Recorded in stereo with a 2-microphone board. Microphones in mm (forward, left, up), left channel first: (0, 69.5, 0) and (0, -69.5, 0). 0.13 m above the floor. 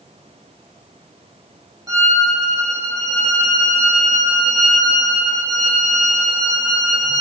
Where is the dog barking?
I don't hear a dog barking.